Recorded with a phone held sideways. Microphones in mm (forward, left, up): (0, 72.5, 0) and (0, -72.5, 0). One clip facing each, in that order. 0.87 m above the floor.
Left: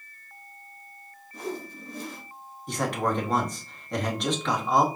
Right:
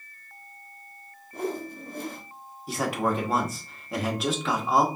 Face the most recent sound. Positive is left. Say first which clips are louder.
# right 1 dB
turn(degrees=-5)  # may be behind; listen again after turning